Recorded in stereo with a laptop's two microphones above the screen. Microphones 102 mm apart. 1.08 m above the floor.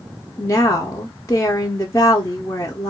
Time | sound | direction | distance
0.4 | a woman speaking | 30° left (ahead or behind) | 0.5 m